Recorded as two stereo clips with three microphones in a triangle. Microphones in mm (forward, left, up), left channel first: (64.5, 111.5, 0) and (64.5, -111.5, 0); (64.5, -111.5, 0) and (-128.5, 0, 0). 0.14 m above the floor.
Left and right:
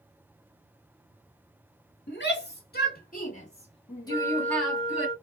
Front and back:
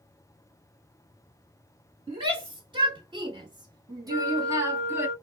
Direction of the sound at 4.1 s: 120° left.